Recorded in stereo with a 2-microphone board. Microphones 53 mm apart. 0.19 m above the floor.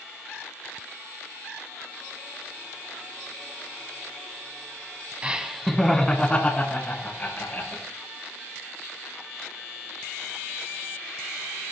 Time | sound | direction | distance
5.2 | laughter | 20° right (ahead or behind) | 1.2 m